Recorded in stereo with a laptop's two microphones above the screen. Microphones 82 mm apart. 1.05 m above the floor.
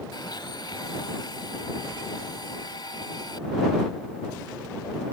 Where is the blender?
60° left (ahead or behind).